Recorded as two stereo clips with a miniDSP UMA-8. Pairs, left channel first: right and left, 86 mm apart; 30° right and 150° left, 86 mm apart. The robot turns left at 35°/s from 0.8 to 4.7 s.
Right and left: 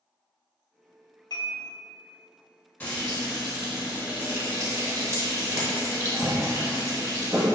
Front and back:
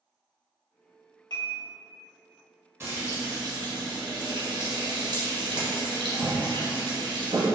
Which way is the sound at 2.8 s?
155° right.